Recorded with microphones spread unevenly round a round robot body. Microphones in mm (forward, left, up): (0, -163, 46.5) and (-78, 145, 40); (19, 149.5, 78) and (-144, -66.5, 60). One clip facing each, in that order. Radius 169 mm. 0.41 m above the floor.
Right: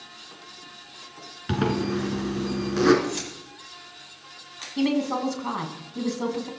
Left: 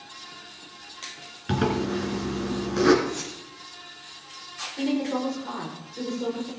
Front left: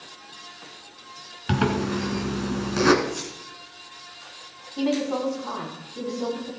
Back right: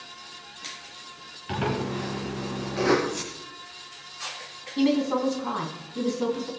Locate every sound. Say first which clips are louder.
1.5 s a zipper: even, front left 5 dB; 10° left, 2.0 m
3.0 s keys jangling: right 1 dB, even; 40° right, 10 m
4.8 s a woman speaking: right 2 dB, back right 2 dB; 70° right, 3.5 m